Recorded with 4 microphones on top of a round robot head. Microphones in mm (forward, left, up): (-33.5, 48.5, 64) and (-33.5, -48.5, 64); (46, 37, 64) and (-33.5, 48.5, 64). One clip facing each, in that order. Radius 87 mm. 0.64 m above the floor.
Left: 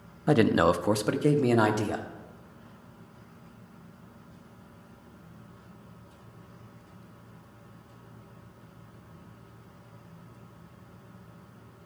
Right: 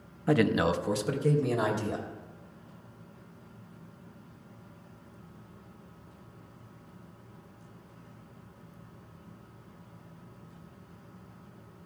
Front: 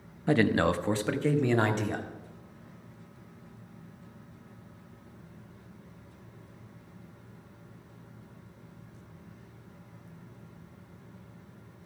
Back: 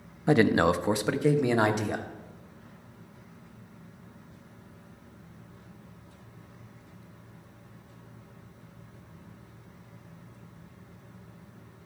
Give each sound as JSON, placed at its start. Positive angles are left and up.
{"t": 0.3, "sound": "a man speaking", "azimuth_deg": 130, "distance_m": 0.6}